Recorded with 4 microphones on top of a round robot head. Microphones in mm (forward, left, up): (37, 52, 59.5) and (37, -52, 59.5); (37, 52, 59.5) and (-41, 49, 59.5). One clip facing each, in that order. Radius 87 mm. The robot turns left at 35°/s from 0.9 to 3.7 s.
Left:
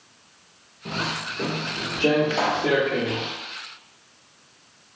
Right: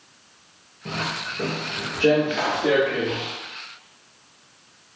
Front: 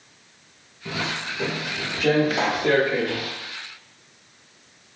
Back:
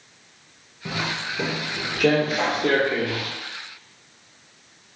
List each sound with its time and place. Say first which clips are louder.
0.8 s footsteps: even, back 1 dB; 170° left, 1.0 m; by 3.3 s 160° left, 1.4 m
2.3 s a pop: even, even; 40° left, 0.6 m; by 2.7 s 25° left, 0.6 m